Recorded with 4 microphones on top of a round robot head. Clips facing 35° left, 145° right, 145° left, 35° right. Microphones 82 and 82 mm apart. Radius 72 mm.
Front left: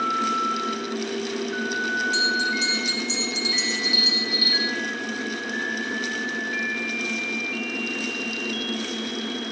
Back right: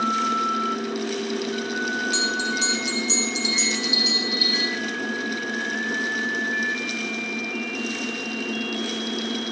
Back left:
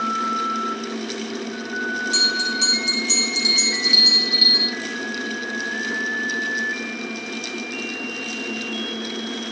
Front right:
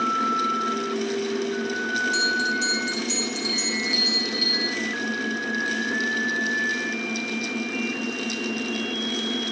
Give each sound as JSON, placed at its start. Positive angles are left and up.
{"t": 2.1, "sound": "a bell", "azimuth_deg": 175, "distance_m": 0.8}